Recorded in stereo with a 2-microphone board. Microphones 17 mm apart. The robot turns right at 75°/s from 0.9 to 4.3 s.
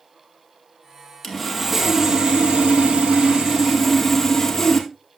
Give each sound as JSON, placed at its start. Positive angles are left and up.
{"t": 1.2, "sound": "sawing", "azimuth_deg": 155, "distance_m": 2.0}